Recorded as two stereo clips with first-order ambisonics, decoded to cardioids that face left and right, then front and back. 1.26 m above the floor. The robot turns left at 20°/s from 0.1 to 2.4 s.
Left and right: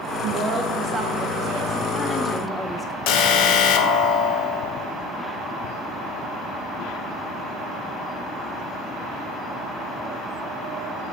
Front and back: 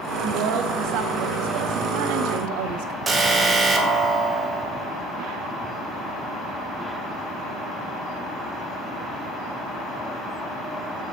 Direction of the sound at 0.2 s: 150° right.